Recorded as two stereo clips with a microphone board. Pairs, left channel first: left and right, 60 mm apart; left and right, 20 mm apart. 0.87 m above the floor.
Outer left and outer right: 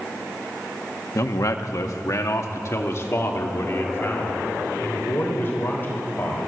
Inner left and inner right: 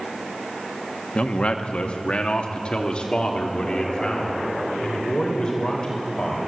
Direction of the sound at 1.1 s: 60° left (ahead or behind).